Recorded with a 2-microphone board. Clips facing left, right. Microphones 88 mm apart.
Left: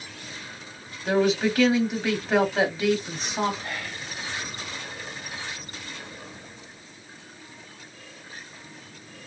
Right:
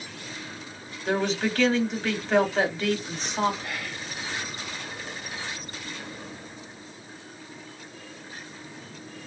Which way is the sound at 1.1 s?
5° left (ahead or behind).